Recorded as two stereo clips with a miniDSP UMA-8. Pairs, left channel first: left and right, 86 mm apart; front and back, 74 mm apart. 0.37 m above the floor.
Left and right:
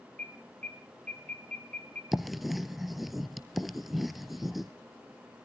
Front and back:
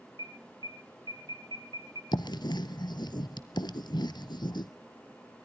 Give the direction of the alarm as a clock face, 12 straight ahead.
7 o'clock.